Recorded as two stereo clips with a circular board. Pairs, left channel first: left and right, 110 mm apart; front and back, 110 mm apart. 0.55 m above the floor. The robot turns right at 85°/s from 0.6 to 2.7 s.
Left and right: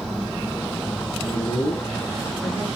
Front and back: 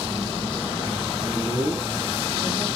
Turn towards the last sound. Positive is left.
turn(degrees=-155)